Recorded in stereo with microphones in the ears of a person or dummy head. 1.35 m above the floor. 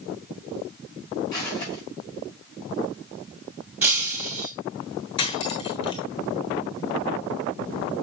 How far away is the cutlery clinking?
About 1.2 m.